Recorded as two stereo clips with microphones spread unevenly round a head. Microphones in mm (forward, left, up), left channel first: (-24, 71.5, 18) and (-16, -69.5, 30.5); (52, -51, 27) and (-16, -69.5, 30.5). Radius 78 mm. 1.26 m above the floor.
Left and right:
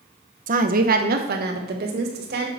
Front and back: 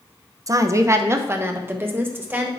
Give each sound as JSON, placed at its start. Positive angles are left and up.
{"t": 0.5, "sound": "a woman speaking", "azimuth_deg": -120, "distance_m": 1.0}